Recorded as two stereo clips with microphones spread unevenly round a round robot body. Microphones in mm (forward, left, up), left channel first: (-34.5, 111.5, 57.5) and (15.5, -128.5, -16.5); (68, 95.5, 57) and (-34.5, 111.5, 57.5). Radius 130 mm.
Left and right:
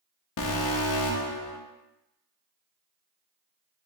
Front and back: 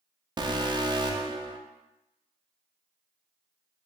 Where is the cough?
I don't hear a cough.